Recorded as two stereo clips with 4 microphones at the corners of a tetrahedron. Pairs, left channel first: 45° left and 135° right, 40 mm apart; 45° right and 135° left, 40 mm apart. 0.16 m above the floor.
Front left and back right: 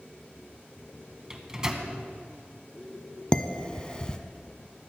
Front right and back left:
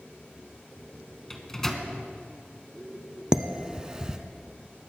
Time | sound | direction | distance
1.3 | a microwave | 95° right | 1.3 m
3.3 | dishes clattering | 85° left | 0.8 m